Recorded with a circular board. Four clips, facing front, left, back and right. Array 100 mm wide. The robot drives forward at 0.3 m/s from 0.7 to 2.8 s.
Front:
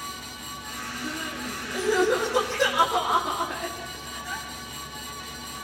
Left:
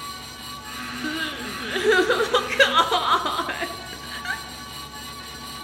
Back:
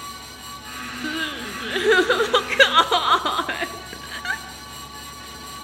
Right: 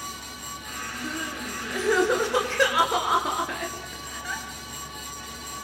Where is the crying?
145° left, 1.6 m; by 4.4 s 160° left, 1.9 m.